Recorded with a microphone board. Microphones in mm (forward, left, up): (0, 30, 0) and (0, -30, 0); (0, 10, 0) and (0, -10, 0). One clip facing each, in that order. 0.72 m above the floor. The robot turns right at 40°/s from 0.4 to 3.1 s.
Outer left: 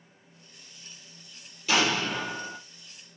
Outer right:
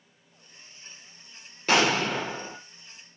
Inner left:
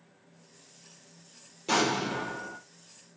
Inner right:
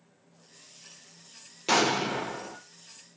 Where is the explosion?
125° right, 0.5 m; by 2.6 s 90° right, 0.5 m.